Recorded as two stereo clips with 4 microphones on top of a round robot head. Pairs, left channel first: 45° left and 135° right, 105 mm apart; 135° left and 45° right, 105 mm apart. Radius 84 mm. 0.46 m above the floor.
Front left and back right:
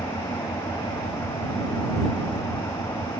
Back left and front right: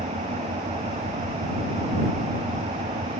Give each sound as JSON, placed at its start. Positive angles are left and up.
{"t": 0.0, "sound": "an engine running", "azimuth_deg": -20}